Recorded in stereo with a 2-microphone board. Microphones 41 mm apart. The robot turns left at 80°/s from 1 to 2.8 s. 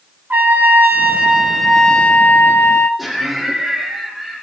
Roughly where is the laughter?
Centre.